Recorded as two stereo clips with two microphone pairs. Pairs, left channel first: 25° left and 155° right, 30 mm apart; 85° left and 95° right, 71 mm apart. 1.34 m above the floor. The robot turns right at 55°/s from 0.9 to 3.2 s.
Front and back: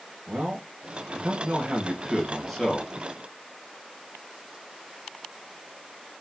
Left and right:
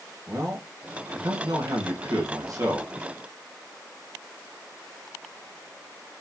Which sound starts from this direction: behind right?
A man speaking, at 0.3 s.